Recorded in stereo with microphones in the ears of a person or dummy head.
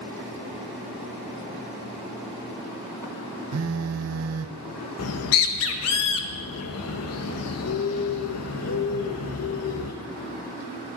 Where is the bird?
75° left (ahead or behind), 1.1 m.